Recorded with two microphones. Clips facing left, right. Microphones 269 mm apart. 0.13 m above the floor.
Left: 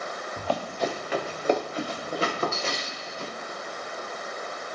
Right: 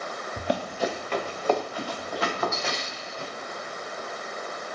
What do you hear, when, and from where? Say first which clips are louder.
0.4 s running footsteps: right 1 dB; 25° right (ahead or behind), 0.7 m; by 3.3 s 40° left (ahead or behind), 2.0 m